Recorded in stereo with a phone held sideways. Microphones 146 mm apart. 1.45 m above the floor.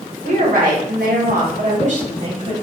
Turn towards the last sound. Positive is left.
turn(degrees=-45)  # may be behind; listen again after turning